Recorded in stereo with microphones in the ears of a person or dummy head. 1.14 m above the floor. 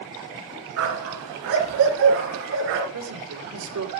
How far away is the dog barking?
About 4 m.